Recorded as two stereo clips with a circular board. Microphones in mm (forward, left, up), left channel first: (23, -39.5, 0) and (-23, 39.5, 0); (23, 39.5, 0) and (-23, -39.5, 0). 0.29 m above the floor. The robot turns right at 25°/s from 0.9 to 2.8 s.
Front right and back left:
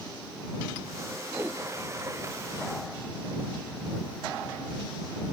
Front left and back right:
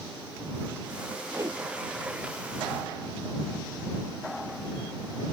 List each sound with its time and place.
1.3 s a whoosh: straight behind; by 1.6 s 170° right